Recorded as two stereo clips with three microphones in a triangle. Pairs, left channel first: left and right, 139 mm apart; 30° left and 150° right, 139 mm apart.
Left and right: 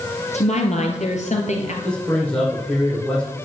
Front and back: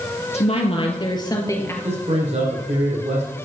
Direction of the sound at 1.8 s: 175° left.